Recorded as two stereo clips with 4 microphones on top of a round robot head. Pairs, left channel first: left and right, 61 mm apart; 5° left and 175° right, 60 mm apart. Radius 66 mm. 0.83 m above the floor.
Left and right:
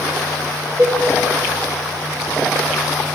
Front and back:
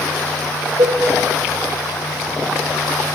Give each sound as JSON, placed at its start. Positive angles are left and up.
{"t": 0.8, "sound": "a cowbell", "azimuth_deg": -155, "distance_m": 1.9}